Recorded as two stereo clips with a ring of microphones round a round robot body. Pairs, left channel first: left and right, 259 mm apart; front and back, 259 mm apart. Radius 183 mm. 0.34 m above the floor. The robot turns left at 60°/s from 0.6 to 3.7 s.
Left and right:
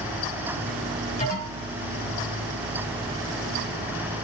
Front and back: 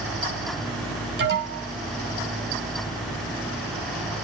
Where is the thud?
I don't hear a thud.